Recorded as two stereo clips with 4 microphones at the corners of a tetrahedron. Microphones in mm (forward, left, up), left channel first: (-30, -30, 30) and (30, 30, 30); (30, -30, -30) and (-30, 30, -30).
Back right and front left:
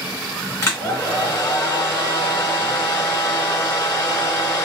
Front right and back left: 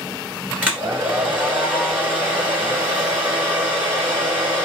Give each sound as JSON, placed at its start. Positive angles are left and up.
{"t": 0.6, "sound": "a hair dryer", "azimuth_deg": -165, "distance_m": 1.8}